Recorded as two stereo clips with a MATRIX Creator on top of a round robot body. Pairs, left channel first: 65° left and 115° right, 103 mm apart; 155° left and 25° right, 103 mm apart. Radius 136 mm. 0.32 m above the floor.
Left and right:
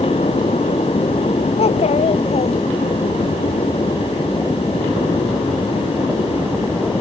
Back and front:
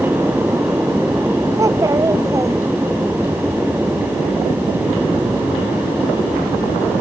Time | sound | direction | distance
1.6 | a child speaking | 40° left | ?